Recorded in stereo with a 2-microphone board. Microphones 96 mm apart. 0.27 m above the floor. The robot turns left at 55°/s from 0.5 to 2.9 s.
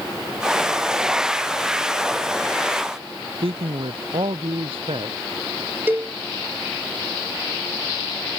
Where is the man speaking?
75° right (ahead or behind).